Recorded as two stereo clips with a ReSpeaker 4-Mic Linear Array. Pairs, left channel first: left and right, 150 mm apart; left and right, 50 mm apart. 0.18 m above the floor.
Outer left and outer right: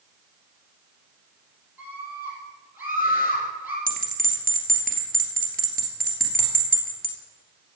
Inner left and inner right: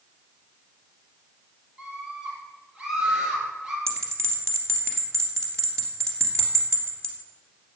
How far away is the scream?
About 5.5 m.